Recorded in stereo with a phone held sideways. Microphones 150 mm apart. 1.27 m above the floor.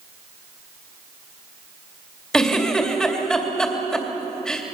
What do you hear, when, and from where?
2.3 s a giggle: 5° left (ahead or behind), 3 m